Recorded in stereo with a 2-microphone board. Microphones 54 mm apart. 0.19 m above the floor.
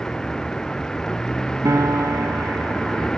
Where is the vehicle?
10° left (ahead or behind).